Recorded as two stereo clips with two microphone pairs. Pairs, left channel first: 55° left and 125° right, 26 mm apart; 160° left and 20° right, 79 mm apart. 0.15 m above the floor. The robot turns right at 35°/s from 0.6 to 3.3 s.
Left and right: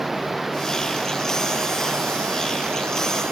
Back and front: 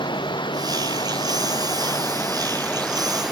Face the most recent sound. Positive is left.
turn(degrees=-105)